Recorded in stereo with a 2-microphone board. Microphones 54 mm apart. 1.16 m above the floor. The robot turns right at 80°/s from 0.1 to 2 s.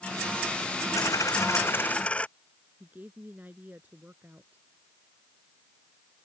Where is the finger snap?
I don't hear a finger snap.